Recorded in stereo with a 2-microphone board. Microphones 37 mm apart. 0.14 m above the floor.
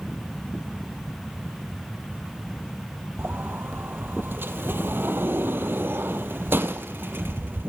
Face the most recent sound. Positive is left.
turn(degrees=-70)  # may be behind; listen again after turning